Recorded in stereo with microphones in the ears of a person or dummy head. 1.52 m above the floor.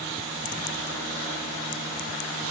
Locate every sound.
Only background noise.